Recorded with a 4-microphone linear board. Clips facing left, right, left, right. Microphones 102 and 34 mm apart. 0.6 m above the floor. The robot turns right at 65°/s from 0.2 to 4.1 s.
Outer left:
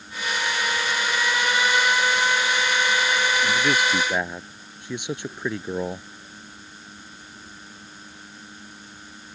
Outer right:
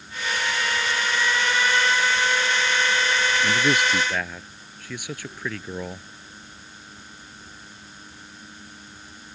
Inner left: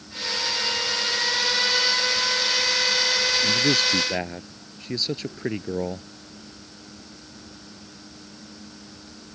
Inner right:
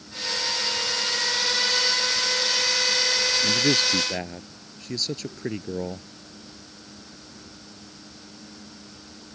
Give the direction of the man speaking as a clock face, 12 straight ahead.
1 o'clock.